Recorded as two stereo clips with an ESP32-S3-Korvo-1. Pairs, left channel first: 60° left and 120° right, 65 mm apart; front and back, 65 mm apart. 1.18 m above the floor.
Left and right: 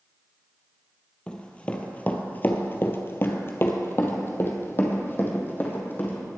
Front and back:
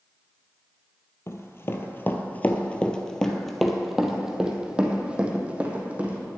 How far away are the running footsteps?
About 1.5 m.